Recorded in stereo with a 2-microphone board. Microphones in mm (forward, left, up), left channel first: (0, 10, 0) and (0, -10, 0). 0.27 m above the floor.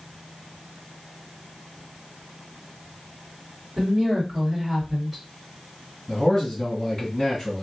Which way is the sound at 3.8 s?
25° right (ahead or behind).